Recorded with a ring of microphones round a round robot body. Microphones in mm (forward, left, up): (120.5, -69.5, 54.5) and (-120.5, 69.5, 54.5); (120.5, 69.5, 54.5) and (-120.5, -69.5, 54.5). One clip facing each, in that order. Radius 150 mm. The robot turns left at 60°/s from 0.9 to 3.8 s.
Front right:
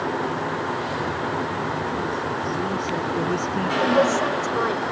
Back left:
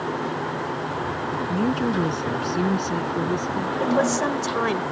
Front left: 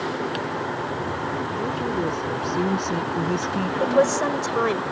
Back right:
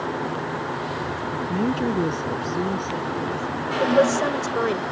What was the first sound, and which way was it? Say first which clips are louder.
A woman speaking: back left 6 dB, back right 7 dB; 175° left.